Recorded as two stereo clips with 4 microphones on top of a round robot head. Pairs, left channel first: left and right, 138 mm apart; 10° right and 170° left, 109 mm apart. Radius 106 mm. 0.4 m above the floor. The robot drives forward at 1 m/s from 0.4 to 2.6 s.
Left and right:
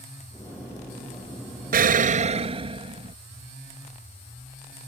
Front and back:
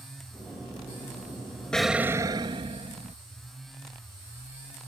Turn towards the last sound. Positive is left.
turn(degrees=-140)